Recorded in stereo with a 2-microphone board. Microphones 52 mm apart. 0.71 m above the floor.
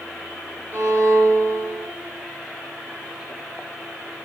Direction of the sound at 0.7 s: 45° right (ahead or behind).